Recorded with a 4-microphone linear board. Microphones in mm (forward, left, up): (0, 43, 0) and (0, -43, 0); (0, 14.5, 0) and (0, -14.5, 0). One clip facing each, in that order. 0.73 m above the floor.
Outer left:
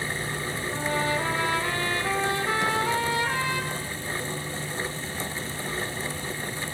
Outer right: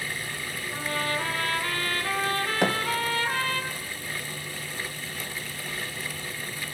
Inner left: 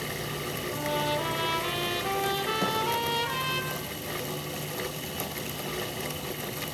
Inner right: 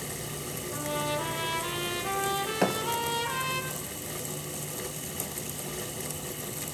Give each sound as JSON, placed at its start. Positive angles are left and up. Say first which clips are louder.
{"t": 0.7, "sound": "a trumpet", "louder": "outer left 3 dB, inner left 2 dB", "side_deg": 15, "distance_m": 5.0}
{"t": 2.6, "sound": "a thud", "louder": "outer right 3 dB, inner right 3 dB", "side_deg": -60, "distance_m": 3.0}